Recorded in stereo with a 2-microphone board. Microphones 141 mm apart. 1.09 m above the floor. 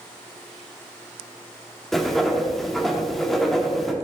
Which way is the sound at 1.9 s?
Centre (ahead or behind).